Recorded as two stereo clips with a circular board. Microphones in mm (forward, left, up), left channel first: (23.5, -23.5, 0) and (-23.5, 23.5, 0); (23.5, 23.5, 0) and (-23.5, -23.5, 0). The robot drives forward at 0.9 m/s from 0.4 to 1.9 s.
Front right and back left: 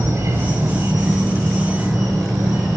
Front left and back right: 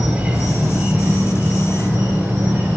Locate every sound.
0.0 s an insect: 170° left, 0.8 m; by 2.8 s 175° left, 2 m